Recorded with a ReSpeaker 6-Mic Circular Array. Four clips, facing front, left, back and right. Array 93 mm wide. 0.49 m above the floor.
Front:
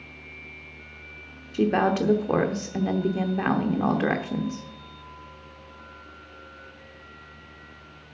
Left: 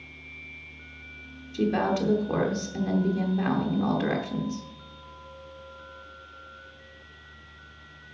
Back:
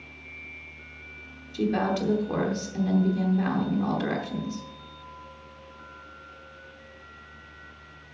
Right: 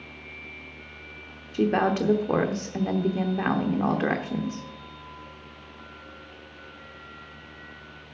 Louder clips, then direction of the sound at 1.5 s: Right 2 dB, front 4 dB; 40° right.